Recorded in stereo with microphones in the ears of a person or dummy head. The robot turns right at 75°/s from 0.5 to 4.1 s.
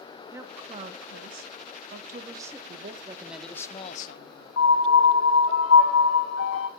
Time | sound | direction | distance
0.3 | a woman speaking | 165° right | 1.5 m
2.7 | a man speaking | 55° right | 1.4 m
4.6 | a piano | 80° left | 1.9 m